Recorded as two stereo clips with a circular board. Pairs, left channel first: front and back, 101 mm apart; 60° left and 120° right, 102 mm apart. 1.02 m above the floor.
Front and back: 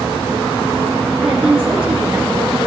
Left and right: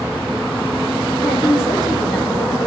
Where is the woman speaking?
100° left, 2 m.